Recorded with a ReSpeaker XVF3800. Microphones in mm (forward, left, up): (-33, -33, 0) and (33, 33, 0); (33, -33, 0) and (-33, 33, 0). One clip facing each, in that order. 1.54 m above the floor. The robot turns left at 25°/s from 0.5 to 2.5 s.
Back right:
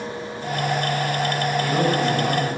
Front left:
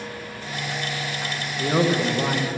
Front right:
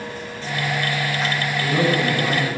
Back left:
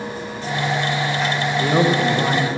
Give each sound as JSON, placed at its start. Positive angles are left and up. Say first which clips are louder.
{"t": 1.6, "sound": "a man speaking", "louder": "front left 3 dB, back left 3 dB", "azimuth_deg": 105, "distance_m": 1.6}